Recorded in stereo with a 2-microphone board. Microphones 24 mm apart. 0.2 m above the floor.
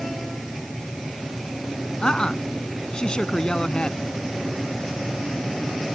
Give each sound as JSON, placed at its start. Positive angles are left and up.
{"t": 2.0, "sound": "a woman speaking", "side_deg": 35}